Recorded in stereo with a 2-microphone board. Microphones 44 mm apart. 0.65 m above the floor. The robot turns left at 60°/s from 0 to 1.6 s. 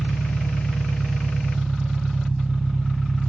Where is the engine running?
95° left; by 3.3 s 5° right.